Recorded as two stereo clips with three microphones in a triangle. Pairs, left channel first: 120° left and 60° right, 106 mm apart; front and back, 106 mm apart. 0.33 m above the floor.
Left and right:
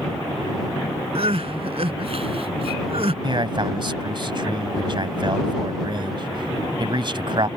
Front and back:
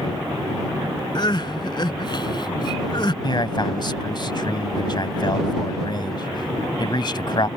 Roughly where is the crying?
Ahead right.